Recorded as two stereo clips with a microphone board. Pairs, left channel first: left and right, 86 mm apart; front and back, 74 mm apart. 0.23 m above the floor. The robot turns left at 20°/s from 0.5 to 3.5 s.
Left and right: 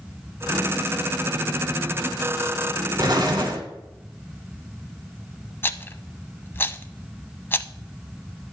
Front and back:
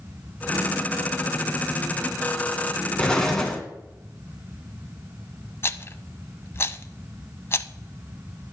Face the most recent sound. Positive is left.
turn(degrees=35)